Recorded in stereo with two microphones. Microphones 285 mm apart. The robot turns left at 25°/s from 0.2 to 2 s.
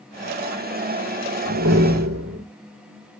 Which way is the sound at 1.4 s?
75° right (ahead or behind).